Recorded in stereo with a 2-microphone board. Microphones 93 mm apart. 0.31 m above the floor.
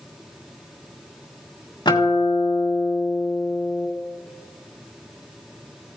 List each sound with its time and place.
1.9 s a guitar: 50° left (ahead or behind), 2.0 m